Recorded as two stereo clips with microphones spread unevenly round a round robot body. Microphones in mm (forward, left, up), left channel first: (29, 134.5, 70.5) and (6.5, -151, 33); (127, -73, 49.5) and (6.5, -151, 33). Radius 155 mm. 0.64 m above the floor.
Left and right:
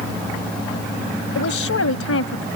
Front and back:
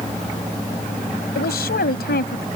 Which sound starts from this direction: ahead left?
A woman speaking, at 1.4 s.